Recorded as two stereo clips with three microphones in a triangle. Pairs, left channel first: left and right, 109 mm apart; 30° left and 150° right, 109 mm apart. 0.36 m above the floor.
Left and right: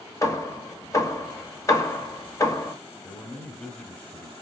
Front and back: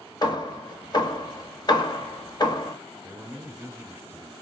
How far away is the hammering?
About 0.6 m.